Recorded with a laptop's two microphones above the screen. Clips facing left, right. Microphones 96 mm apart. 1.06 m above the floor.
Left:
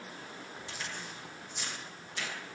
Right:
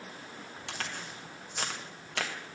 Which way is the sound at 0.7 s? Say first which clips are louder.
Right 4 dB; 75° right (ahead or behind).